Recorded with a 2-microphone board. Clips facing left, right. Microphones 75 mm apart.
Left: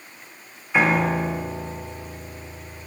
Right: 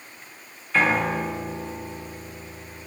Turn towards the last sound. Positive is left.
turn(degrees=15)  # may be behind; listen again after turning